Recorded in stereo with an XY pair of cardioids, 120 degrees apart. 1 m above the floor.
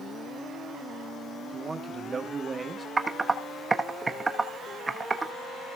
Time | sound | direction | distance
1.5 | a man speaking | 30° right | 1.4 m
3.0 | typing on a keyboard | 20° right | 1.1 m